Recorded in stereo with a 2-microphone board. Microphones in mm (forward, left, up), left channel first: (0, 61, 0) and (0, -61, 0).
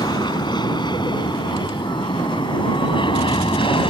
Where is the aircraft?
35° left (ahead or behind); by 3.9 s 45° left (ahead or behind).